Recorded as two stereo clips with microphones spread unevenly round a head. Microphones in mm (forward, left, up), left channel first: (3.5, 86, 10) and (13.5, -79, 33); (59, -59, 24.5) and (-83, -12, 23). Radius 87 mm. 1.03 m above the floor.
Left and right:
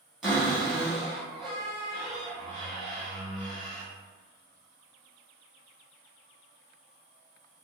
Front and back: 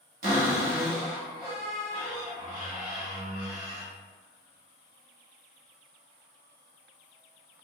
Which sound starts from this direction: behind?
A cupboard door, at 0.2 s.